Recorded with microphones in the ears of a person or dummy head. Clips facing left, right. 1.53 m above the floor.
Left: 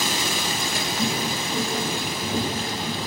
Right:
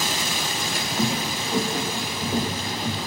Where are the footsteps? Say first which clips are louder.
Right 2 dB; 35° right (ahead or behind), 3.5 m; by 3.0 s 15° right (ahead or behind), 4 m.